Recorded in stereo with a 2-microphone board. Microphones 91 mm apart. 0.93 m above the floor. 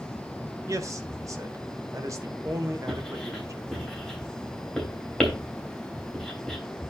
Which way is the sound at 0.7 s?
35° right (ahead or behind).